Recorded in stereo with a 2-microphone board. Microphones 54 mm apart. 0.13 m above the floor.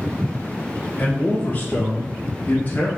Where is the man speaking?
20° left (ahead or behind), 1.6 m; by 2.9 s 35° left (ahead or behind), 1.2 m.